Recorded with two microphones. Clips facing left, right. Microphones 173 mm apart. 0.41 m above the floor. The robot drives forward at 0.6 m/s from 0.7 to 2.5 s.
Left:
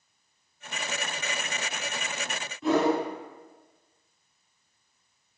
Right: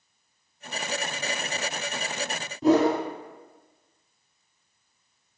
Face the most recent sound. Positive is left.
turn(degrees=-40)  # may be behind; listen again after turning